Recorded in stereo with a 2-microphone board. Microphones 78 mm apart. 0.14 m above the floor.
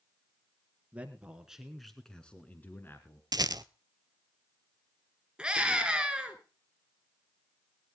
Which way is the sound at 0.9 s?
20° right (ahead or behind).